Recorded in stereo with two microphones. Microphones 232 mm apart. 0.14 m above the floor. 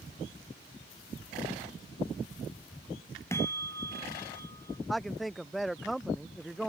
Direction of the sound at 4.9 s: Centre (ahead or behind).